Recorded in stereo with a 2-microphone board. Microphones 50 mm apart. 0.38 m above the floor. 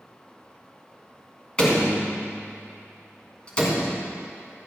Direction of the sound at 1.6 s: 20° left (ahead or behind).